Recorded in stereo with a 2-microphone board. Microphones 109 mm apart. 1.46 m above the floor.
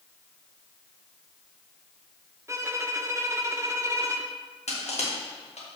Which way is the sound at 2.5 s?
25° right (ahead or behind).